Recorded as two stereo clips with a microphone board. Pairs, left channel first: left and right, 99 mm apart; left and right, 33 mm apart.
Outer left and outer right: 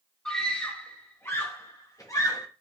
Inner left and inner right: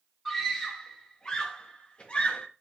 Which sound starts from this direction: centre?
A scream, at 0.2 s.